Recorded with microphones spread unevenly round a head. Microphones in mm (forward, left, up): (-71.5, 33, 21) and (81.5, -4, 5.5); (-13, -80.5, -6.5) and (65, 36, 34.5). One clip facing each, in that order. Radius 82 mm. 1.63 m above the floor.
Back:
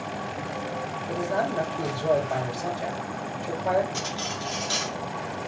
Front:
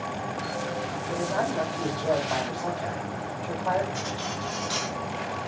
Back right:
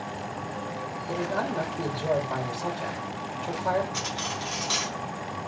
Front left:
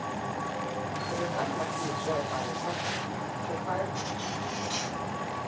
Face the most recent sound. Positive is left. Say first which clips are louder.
# even, back right 1 dB
turn(degrees=-140)